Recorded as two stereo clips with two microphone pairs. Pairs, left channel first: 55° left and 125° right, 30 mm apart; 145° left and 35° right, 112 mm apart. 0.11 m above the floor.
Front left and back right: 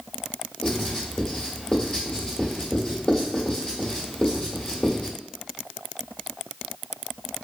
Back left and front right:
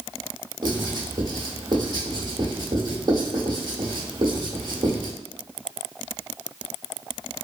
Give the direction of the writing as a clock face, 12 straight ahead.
12 o'clock.